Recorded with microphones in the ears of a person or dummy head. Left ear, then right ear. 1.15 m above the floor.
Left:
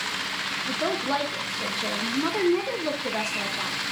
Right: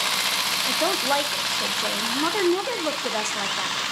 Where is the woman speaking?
40° right (ahead or behind), 0.6 m.